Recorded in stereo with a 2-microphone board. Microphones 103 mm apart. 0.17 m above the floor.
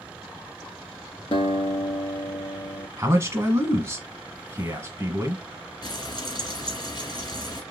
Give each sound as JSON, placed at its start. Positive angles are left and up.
{"t": 1.3, "sound": "a guitar", "side_deg": 65, "distance_m": 1.0}
{"t": 3.0, "sound": "a man speaking", "side_deg": -30, "distance_m": 1.1}
{"t": 5.8, "sound": "frying", "side_deg": 40, "distance_m": 1.6}